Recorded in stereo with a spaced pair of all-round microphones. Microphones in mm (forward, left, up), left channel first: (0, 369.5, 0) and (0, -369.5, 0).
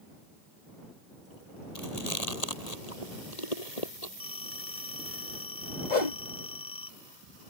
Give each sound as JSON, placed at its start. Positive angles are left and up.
{"t": 1.8, "sound": "chewing", "side_deg": 55}
{"t": 4.2, "sound": "a phone ringing", "side_deg": 10}
{"t": 5.9, "sound": "a whoosh", "side_deg": 70}